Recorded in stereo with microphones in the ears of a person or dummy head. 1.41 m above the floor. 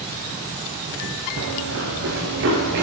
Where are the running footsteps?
65° right (ahead or behind), 5.5 m; by 2.8 s 60° right (ahead or behind), 7 m.